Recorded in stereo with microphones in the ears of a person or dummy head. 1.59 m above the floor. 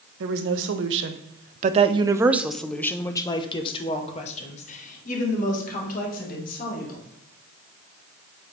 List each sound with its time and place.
0.2 s a woman speaking: 75° right (ahead or behind), 1.1 m; by 7.0 s 50° left (ahead or behind), 2.5 m